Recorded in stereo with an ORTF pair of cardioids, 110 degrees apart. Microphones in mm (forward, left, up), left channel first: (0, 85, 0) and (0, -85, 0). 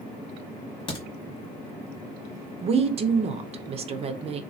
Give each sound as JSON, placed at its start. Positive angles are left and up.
{"t": 0.9, "sound": "a crack", "azimuth_deg": 35, "distance_m": 1.3}
{"t": 2.6, "sound": "a woman speaking", "azimuth_deg": -40, "distance_m": 0.5}